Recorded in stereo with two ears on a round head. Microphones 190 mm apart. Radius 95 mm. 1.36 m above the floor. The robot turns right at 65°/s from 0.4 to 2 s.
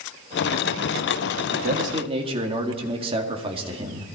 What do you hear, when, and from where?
1.5 s a man speaking: 60° right, 2 m; by 4.1 s 25° right, 2 m